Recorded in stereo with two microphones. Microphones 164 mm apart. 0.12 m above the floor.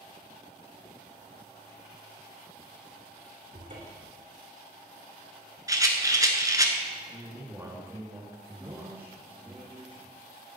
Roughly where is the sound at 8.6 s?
Centre.